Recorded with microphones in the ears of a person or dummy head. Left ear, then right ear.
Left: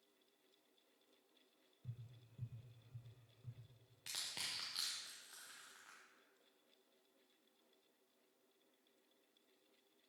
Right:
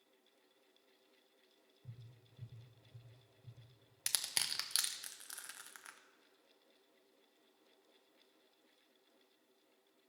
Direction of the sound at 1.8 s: 60° left (ahead or behind).